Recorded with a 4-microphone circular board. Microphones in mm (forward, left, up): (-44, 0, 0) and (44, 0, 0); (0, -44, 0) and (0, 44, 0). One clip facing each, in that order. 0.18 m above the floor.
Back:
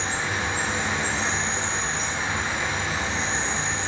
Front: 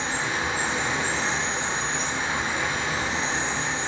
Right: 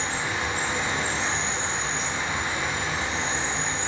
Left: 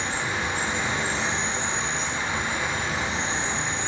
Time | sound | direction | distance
0.0 | an insect | 85° left | 1.5 m